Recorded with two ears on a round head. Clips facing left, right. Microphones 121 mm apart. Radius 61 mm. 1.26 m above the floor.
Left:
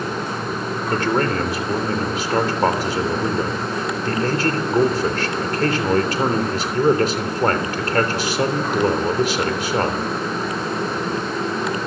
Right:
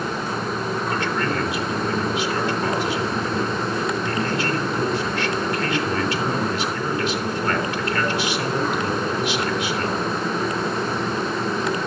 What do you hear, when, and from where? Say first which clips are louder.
0.9 s a man speaking: left 7 dB; 35° left (ahead or behind), 3.5 m